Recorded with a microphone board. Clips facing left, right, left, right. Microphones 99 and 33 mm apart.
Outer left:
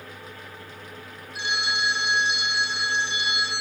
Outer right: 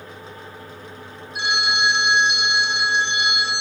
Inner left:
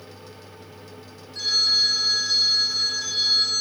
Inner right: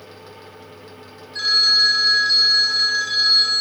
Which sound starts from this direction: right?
A phone ringing, at 1.4 s.